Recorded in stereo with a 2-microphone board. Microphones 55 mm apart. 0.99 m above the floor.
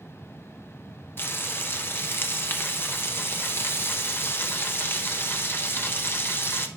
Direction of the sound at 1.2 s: 45° left (ahead or behind).